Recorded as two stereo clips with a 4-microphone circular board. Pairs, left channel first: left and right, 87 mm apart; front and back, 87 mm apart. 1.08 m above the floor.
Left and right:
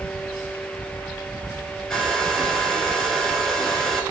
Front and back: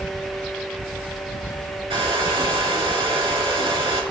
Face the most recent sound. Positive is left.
turn(degrees=170)